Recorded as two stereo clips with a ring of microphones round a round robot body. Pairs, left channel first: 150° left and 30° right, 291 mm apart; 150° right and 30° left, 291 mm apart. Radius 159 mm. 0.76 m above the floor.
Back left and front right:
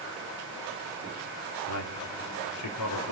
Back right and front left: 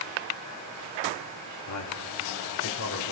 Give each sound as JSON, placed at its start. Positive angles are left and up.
{"t": 1.7, "sound": "a man speaking", "azimuth_deg": -175, "distance_m": 2.5}